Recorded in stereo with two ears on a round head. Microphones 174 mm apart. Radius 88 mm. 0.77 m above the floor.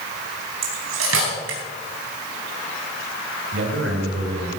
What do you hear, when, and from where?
0.6 s cutlery clinking: 90° right, 4 m
3.5 s a man speaking: 70° right (ahead or behind), 4 m